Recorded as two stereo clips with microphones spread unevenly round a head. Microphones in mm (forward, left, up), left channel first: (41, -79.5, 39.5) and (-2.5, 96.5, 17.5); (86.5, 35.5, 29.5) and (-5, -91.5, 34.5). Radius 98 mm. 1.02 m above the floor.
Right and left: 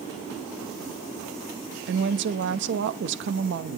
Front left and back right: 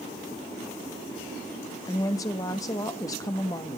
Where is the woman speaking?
125° left, 1.0 m.